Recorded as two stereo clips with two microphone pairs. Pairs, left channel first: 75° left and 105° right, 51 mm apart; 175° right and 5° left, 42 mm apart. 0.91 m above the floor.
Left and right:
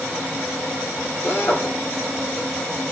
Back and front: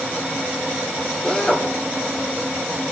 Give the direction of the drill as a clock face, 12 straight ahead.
8 o'clock.